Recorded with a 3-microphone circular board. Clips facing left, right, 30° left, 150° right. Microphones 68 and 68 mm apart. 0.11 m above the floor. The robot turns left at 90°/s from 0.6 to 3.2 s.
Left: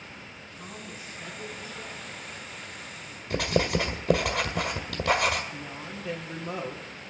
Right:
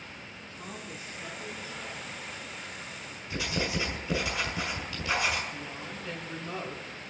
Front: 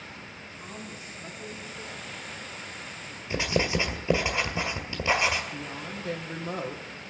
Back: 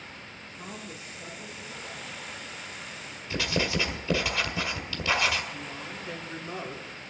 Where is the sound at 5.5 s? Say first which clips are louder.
Left 1 dB, front 2 dB; 15° left, 2.5 m.